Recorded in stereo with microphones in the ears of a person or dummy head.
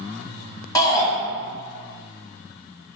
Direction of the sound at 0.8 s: 20° left (ahead or behind).